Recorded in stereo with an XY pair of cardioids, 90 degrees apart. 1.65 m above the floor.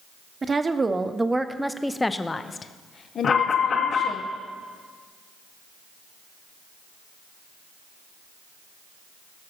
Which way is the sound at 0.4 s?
35° right.